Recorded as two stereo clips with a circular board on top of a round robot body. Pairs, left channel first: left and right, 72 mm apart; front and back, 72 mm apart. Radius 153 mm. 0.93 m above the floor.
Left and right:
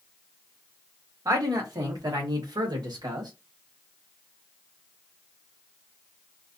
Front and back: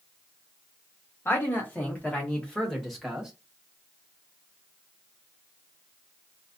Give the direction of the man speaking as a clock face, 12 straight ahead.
2 o'clock.